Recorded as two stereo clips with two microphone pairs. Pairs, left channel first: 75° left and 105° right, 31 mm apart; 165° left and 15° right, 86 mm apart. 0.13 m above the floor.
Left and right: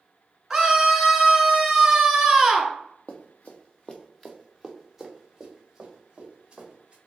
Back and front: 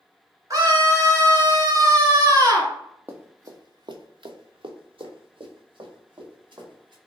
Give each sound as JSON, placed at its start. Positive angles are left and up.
{"t": 0.5, "sound": "a scream", "azimuth_deg": -30, "distance_m": 1.6}
{"t": 3.1, "sound": "running footsteps", "azimuth_deg": 50, "distance_m": 0.9}